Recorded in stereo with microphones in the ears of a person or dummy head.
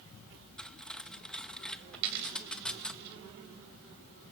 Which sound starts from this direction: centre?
Cutlery clinking, at 0.6 s.